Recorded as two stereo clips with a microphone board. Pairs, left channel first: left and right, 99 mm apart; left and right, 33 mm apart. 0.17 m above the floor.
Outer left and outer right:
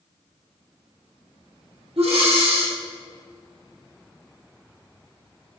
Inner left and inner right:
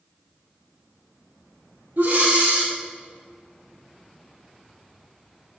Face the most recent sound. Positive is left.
turn(degrees=-80)